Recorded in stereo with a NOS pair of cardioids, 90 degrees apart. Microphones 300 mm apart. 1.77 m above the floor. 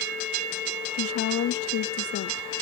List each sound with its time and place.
0.9 s a woman speaking: 50° left, 0.6 m